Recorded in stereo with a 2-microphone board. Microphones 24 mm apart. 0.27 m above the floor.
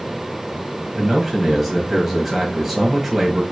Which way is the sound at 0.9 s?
5° right (ahead or behind).